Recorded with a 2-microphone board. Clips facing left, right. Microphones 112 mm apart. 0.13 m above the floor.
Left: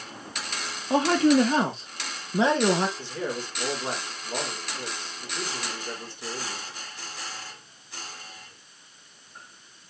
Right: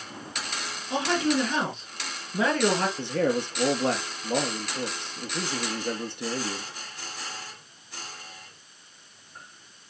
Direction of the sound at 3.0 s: 65° right (ahead or behind).